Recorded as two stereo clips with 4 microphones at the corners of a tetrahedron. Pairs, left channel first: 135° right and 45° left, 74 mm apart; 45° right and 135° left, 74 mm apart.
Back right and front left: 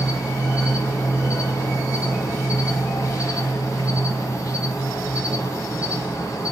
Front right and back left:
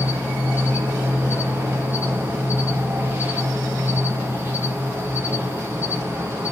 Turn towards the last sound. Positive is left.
turn(degrees=-165)